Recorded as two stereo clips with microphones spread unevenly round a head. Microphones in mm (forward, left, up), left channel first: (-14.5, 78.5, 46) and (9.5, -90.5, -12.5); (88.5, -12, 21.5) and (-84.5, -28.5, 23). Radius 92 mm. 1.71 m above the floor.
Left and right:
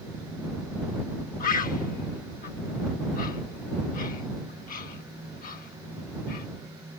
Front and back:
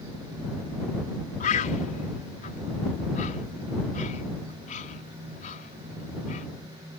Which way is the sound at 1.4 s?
55° left.